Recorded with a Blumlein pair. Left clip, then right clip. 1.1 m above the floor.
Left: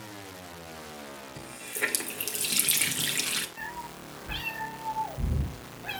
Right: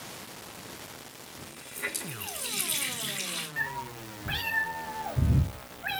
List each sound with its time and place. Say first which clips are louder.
1.4 s a running tap: left 6 dB; 30° left, 2 m
3.6 s a cat meowing: right 5 dB; 35° right, 5.5 m